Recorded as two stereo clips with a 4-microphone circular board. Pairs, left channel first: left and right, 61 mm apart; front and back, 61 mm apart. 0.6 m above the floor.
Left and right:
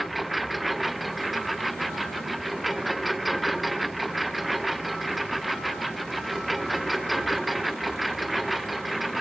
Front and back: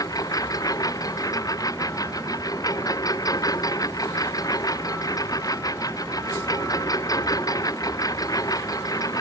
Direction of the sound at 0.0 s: Straight ahead.